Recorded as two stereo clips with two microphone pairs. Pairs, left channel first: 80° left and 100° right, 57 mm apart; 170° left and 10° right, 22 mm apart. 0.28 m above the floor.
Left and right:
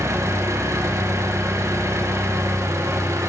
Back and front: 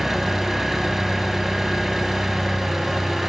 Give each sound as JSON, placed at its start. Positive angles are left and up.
{"t": 0.0, "sound": "an engine running", "azimuth_deg": -85, "distance_m": 1.5}